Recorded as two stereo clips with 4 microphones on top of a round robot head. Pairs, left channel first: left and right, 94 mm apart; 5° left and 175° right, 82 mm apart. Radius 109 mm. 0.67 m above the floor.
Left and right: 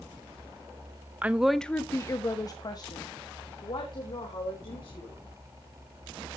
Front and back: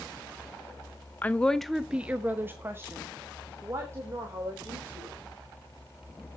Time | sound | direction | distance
1.2 | a woman speaking | 40° right | 0.9 m